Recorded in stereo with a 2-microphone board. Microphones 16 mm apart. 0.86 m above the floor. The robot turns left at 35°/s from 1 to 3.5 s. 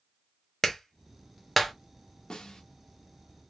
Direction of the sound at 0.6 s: 30° left (ahead or behind).